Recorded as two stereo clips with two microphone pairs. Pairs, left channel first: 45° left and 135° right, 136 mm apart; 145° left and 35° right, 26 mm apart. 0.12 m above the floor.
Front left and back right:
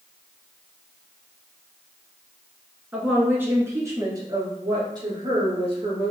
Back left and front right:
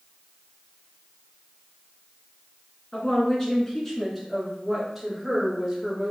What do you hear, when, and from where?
2.9 s a woman speaking: 160° left, 1.4 m; by 6.1 s 105° right, 1.9 m